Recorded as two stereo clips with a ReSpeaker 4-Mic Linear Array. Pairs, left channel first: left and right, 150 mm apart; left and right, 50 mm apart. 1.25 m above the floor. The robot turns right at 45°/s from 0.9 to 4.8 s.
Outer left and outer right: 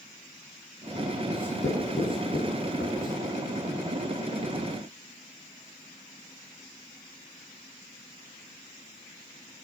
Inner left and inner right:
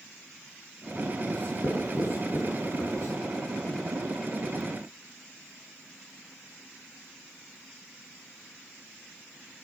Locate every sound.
1.3 s writing: 30° left (ahead or behind), 7.5 m; by 3.1 s 70° left (ahead or behind), 7.5 m